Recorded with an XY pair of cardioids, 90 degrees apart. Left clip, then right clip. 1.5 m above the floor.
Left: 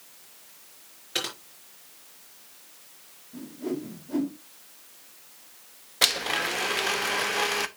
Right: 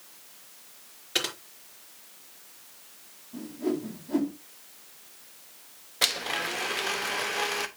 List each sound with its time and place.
1.1 s typing on a keyboard: 10° right, 4.5 m
3.3 s a whoosh: 15° right, 3.5 m
6.0 s a blender: 30° left, 0.9 m